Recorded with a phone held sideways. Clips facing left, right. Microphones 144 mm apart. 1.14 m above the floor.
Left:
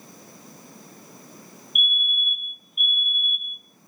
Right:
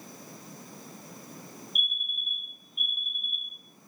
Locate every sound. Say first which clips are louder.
1.8 s a fire alarm: left 8 dB; 35° right (ahead or behind), 4 m